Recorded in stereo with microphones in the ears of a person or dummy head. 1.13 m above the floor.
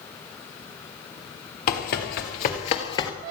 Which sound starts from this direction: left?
Running footsteps, at 1.7 s.